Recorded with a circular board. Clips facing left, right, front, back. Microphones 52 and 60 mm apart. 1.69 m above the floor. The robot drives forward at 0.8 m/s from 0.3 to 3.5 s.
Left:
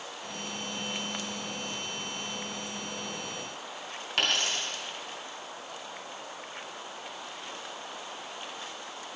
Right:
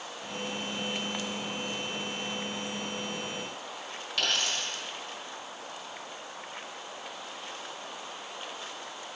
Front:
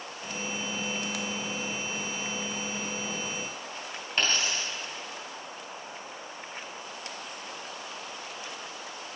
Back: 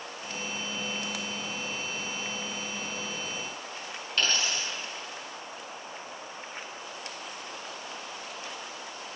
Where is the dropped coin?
65° left, 3 m.